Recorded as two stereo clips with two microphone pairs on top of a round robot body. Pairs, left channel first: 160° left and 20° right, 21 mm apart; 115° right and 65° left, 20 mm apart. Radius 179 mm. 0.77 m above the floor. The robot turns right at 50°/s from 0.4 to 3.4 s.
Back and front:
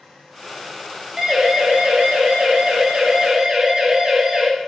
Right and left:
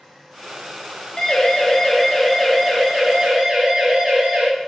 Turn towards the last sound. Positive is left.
turn(degrees=30)